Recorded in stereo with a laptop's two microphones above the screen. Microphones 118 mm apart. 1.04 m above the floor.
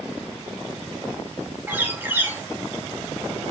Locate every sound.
1.7 s a bird: 15° right (ahead or behind), 0.6 m